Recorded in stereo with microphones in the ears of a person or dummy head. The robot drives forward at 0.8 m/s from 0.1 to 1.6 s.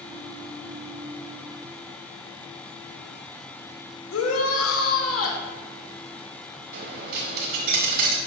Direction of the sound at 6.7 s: 50° right (ahead or behind).